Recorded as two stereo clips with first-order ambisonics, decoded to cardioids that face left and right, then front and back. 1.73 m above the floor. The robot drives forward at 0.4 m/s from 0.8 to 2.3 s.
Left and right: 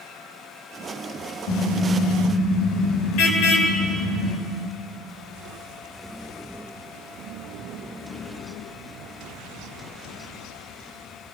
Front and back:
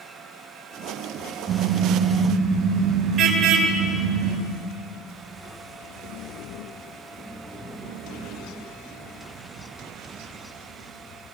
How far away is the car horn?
About 4.5 m.